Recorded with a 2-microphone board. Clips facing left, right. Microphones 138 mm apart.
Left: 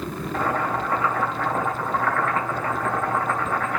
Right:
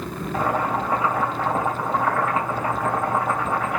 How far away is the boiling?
About 3 m.